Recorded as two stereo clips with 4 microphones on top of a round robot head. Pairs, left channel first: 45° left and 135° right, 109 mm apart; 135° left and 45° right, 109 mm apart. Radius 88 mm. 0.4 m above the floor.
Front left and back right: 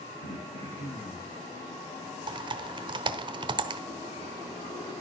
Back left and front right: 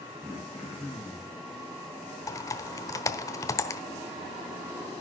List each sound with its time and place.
0.2 s throat clearing: 35° left, 9 m
2.3 s typing on a keyboard: 170° right, 1.0 m